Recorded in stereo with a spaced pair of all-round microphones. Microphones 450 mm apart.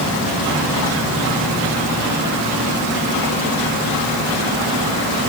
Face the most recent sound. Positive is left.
No sound to turn to.